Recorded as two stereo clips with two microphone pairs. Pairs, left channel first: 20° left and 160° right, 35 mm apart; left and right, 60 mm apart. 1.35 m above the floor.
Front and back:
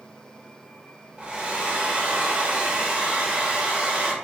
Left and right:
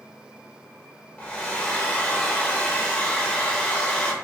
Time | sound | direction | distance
1.2 | a hair dryer | 160° left | 0.7 m